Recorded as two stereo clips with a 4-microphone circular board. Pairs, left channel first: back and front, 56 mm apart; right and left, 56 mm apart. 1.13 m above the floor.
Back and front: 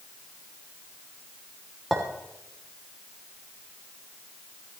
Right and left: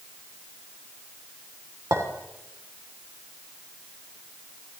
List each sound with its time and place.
1.9 s a clink: 95° left, 3 m